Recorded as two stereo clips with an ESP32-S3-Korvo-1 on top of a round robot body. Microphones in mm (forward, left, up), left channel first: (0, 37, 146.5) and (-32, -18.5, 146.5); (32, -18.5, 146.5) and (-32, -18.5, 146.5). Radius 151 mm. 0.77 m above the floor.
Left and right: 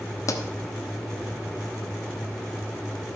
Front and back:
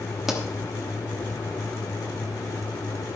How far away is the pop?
About 1.1 m.